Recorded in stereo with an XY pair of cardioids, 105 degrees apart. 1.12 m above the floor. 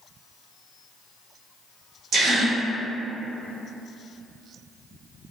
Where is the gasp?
60° right, 1.0 m.